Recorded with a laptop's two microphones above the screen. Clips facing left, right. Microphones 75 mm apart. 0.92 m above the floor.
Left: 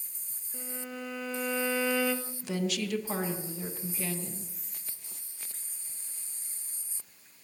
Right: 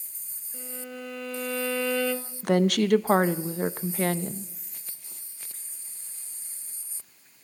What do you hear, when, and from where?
0.5 s a violin: 10° left (ahead or behind), 0.8 m
2.4 s a woman speaking: 60° right (ahead or behind), 0.6 m